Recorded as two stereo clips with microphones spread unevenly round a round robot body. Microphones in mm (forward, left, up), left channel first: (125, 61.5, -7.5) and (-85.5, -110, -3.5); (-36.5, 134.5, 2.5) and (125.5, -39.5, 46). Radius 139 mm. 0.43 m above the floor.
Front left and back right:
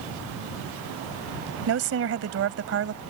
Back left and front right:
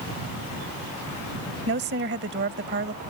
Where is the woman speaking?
105° right.